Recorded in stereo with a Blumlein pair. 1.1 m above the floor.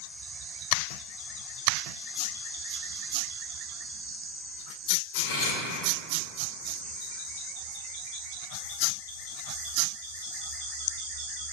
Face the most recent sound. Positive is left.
turn(degrees=50)